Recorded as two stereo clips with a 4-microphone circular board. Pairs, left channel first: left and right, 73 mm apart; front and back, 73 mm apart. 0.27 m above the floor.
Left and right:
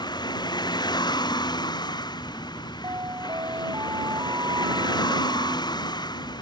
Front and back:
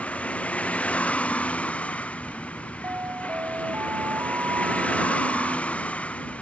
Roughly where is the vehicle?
Left.